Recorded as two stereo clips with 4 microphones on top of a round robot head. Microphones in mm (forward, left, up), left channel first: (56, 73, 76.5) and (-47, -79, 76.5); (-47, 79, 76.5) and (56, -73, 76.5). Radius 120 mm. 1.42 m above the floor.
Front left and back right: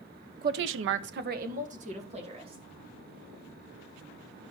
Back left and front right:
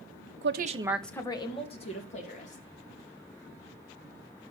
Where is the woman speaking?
80° right, 0.8 m; by 2.6 s 175° left, 3 m.